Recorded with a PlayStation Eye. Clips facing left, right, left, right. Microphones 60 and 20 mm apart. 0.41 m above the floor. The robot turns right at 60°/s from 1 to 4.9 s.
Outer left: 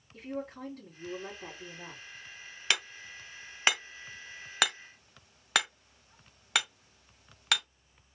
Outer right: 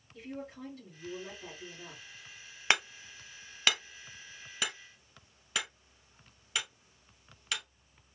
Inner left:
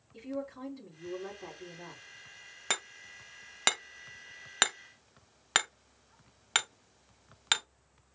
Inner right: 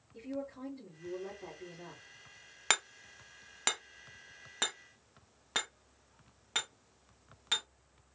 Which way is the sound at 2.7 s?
30° right (ahead or behind).